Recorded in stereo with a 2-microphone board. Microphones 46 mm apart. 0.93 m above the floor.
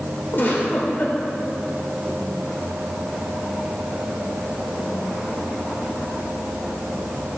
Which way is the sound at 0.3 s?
55° left (ahead or behind).